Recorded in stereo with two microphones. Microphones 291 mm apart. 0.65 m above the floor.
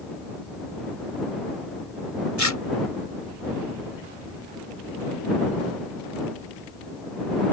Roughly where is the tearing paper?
Left.